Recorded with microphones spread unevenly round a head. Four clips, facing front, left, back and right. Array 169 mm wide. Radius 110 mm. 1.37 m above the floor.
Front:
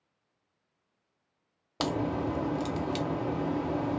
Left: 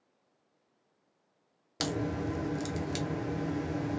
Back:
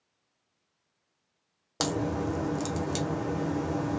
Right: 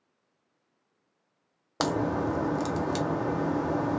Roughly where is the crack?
Right.